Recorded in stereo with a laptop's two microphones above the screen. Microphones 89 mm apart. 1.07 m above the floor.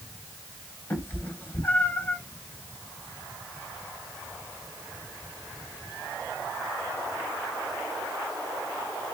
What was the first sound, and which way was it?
A cat meowing, 25° left (ahead or behind).